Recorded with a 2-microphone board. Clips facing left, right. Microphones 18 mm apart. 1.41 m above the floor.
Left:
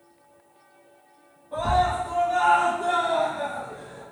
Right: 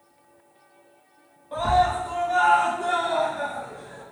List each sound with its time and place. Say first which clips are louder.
1.5 s a scream: right 2 dB; 65° right (ahead or behind), 0.8 m; by 4.0 s 50° right (ahead or behind), 1.6 m